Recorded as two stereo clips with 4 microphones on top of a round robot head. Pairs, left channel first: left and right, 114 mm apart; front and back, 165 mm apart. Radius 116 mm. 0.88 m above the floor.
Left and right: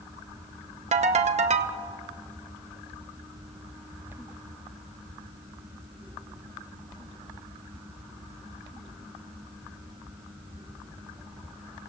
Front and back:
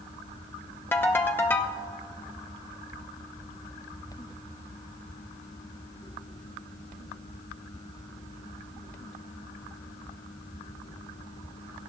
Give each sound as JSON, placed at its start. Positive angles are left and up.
{"t": 0.9, "sound": "a ringtone", "azimuth_deg": -80, "distance_m": 0.8}